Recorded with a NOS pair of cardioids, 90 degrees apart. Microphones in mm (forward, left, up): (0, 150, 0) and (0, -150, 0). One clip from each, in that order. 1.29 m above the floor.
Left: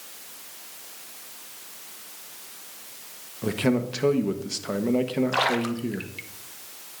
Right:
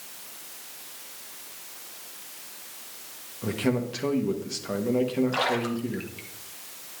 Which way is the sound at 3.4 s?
25° left.